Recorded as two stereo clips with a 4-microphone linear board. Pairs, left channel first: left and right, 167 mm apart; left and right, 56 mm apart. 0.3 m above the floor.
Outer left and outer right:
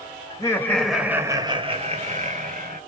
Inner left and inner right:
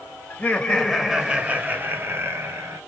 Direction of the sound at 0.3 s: 25° left (ahead or behind).